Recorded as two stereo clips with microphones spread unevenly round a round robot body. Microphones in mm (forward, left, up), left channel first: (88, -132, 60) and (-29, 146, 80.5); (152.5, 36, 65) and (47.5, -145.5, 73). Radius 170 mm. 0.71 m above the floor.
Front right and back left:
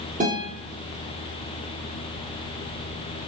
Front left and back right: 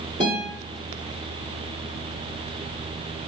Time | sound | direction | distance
0.2 | a guitar | straight behind | 1.0 m